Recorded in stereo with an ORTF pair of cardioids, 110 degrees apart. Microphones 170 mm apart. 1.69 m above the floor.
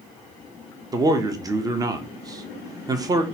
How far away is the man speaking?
About 0.6 m.